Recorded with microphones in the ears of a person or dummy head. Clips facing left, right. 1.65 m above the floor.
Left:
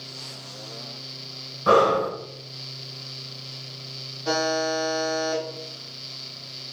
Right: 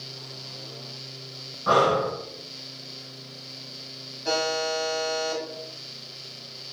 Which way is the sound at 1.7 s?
40° left (ahead or behind).